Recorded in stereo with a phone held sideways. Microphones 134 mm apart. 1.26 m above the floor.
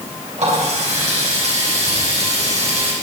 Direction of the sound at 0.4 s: 55° right (ahead or behind).